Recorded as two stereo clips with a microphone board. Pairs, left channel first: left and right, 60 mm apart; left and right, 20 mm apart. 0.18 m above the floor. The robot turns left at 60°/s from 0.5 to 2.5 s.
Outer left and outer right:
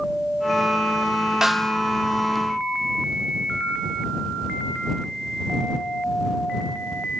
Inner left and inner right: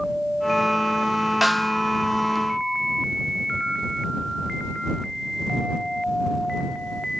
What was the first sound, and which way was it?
A snare drum, 5° right (ahead or behind).